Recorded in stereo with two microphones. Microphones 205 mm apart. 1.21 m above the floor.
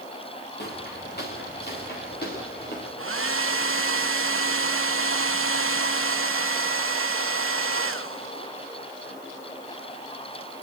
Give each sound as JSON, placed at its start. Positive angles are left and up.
{"t": 0.6, "sound": "footsteps", "side_deg": 50, "distance_m": 6.5}
{"t": 3.0, "sound": "a hair dryer", "side_deg": -75, "distance_m": 0.9}